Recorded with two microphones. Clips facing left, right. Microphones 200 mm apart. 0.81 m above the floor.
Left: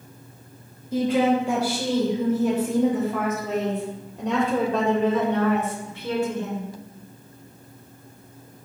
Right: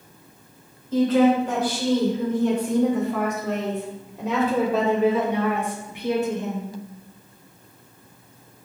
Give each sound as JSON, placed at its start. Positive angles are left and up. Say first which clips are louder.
{"t": 0.9, "sound": "a woman speaking", "louder": "right 3 dB", "side_deg": 15, "distance_m": 4.5}